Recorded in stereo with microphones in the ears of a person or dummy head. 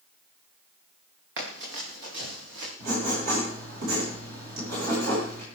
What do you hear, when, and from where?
1.4 s running footsteps: 65° right (ahead or behind), 6.5 m
2.8 s writing: 55° right (ahead or behind), 9.5 m